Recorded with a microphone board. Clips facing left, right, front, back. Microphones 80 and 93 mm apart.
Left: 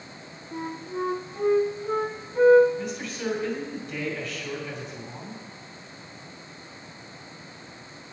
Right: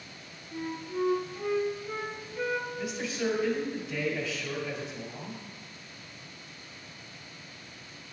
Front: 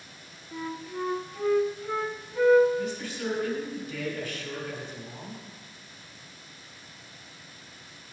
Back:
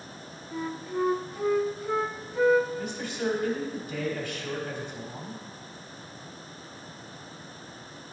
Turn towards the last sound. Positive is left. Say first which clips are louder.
# even, back 1 dB
turn(degrees=-170)